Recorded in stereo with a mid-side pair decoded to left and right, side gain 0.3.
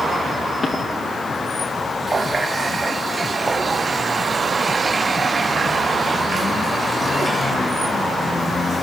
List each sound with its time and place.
0.6 s footsteps: 50° left, 9 m
2.1 s a running tap: 45° right, 2.5 m